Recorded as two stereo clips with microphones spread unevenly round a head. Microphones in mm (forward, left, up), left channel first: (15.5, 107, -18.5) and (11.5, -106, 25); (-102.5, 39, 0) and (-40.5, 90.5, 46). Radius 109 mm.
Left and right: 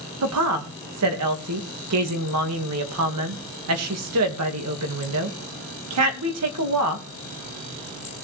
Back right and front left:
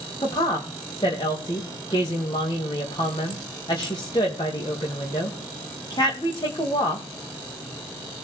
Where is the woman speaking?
80° right, 2 m.